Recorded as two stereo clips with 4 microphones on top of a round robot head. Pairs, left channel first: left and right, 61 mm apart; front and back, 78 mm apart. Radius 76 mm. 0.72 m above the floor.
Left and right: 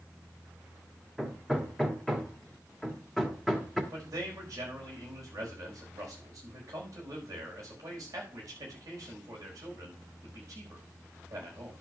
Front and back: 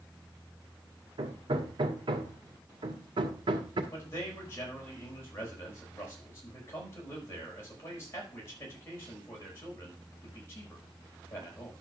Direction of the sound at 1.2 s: Straight behind.